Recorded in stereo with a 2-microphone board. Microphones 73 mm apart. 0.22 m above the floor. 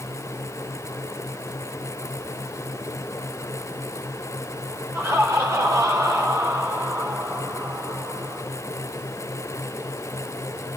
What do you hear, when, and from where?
4.9 s laughter: 35° right (ahead or behind), 6 m; by 8.4 s 50° right (ahead or behind), 6.5 m